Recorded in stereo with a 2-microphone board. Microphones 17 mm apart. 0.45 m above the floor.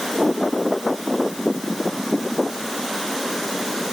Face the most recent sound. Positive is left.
No sound to turn to.